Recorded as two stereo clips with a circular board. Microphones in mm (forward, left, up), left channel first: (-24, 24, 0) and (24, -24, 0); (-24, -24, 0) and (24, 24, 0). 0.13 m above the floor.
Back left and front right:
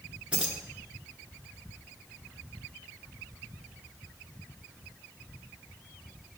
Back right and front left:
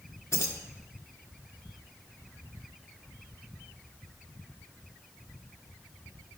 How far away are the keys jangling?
About 1.2 m.